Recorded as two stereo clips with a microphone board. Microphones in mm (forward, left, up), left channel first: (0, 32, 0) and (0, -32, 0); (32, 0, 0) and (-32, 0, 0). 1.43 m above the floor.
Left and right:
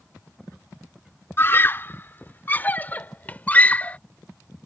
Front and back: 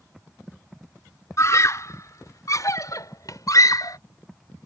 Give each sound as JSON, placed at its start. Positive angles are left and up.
{"t": 1.4, "sound": "a scream", "azimuth_deg": 40}